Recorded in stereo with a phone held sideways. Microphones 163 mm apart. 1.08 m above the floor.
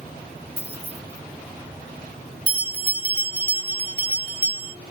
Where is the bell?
65° right (ahead or behind), 1.6 m.